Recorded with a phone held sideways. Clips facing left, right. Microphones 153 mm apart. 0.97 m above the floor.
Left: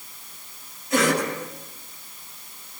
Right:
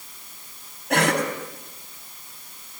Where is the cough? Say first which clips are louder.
Even; 70° right (ahead or behind), 9 m.